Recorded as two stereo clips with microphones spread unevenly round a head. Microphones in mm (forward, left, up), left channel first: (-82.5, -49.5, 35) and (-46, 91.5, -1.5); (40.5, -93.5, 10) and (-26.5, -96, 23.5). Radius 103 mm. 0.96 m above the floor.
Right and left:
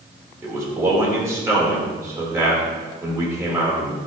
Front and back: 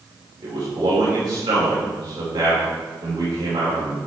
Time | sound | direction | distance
0.4 | a man speaking | 145° left | 3.5 m